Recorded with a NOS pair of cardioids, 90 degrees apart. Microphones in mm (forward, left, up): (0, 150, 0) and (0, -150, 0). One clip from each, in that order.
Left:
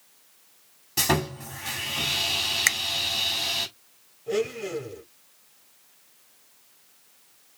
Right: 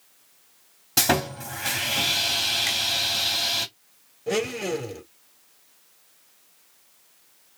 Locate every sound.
1.0 s sawing: 60° right, 2 m
2.7 s a finger snap: 70° left, 1.4 m
4.3 s a blender: 65° right, 3 m